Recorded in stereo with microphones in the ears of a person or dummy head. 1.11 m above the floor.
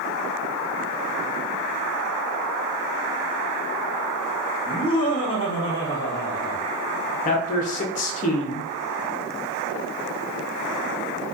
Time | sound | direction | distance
4.7 | laughter | 20° left (ahead or behind) | 1.1 m
7.2 | a man speaking | 40° left (ahead or behind) | 0.5 m